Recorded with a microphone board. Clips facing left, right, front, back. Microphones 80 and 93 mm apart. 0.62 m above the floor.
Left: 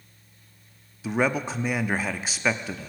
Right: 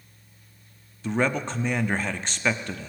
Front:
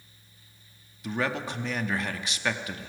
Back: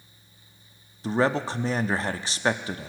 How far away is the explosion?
No explosion in this recording.